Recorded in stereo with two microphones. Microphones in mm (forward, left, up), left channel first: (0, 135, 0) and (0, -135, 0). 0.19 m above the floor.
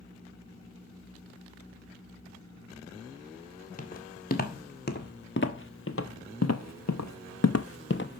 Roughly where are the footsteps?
Left.